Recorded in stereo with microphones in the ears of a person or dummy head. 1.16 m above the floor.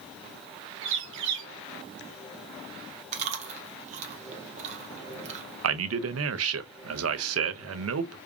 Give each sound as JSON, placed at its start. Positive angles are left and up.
{"t": 0.8, "sound": "a bird", "side_deg": -70, "distance_m": 1.0}
{"t": 3.1, "sound": "chewing", "side_deg": -40, "distance_m": 0.8}
{"t": 5.6, "sound": "a man speaking", "side_deg": -75, "distance_m": 0.5}